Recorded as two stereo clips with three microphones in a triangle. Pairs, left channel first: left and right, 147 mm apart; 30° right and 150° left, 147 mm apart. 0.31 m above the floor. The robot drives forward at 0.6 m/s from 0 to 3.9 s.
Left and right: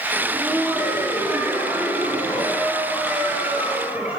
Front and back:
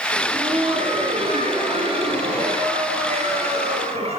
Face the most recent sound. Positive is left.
turn(degrees=-170)